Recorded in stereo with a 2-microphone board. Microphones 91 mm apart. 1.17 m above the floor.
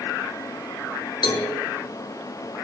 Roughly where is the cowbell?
Left.